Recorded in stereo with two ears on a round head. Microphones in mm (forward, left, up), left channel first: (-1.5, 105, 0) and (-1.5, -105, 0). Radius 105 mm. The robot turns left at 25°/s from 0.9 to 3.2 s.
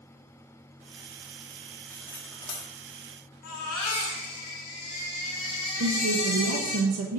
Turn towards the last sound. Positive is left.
turn(degrees=-65)  # may be behind; listen again after turning